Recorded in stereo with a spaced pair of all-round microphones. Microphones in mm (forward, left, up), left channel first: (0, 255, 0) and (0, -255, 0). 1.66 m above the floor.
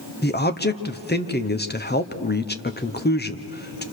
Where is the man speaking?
20° left (ahead or behind), 1.0 m.